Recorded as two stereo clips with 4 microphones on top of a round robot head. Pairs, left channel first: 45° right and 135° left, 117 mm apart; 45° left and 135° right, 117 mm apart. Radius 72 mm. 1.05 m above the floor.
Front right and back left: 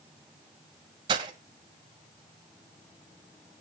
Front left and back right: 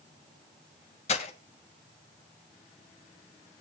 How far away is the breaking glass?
About 2.0 m.